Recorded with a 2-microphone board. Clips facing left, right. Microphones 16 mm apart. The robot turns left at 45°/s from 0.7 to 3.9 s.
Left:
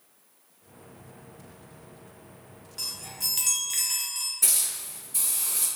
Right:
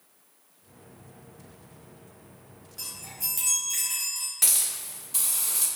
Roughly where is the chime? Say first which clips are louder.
Left 5 dB; left.